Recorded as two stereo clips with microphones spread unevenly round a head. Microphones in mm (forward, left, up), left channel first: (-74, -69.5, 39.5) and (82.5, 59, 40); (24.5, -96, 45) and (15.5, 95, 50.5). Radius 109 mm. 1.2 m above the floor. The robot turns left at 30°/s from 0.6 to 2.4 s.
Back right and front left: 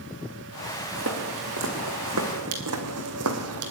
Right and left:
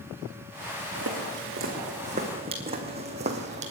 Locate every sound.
0.9 s footsteps: 70° left, 4 m; by 3.7 s 45° left, 2.5 m